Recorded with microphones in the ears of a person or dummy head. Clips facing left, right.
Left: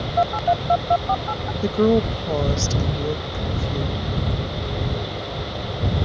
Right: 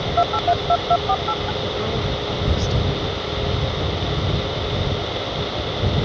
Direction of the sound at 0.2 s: Centre (ahead or behind).